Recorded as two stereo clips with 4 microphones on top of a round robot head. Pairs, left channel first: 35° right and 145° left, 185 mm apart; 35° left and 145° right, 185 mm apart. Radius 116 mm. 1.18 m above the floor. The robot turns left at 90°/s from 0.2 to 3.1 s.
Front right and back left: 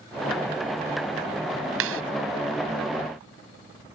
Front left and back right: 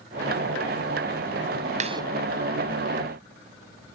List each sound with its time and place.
1.8 s a clap: 160° left; by 2.0 s 140° left